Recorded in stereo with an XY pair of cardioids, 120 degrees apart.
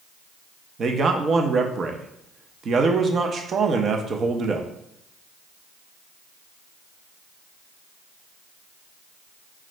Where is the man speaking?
40° right, 0.7 m.